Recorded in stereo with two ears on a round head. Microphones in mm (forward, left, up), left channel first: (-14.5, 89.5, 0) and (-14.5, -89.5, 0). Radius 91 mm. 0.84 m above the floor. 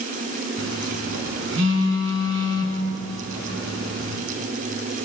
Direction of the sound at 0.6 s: 65° right (ahead or behind).